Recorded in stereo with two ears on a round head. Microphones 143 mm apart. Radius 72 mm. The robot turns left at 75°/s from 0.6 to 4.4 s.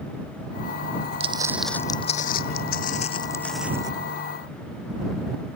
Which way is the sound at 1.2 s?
40° right (ahead or behind).